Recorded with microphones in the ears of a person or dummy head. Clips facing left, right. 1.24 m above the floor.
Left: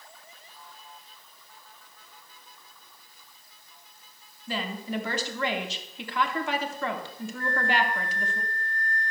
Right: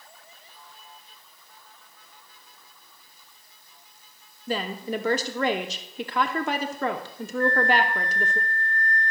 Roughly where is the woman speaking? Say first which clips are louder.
Right 4 dB; right.